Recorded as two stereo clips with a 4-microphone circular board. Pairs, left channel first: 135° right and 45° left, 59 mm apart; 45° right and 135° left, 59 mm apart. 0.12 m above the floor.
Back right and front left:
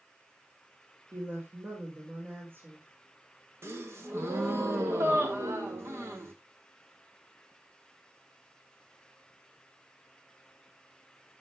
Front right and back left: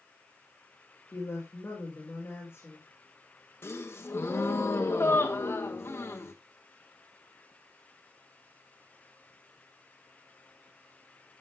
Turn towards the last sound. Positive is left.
turn(degrees=0)